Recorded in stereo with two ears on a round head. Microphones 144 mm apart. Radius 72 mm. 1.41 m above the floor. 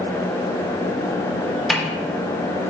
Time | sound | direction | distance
1.7 | a snare drum | 5° left (ahead or behind) | 0.8 m